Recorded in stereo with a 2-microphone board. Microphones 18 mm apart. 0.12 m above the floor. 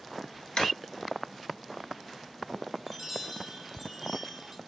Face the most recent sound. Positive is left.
turn(degrees=-10)  # may be behind; listen again after turning